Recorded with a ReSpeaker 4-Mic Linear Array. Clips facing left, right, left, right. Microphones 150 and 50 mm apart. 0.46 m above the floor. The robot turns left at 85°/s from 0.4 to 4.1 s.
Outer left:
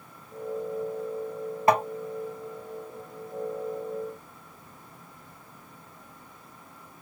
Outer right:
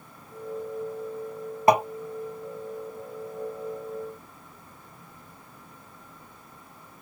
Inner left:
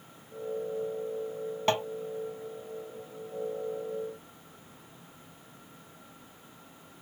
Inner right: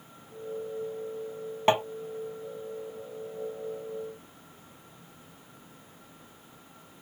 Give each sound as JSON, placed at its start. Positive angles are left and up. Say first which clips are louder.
{"t": 1.7, "sound": "tapping", "louder": "outer right 3 dB, inner right 4 dB", "side_deg": -20}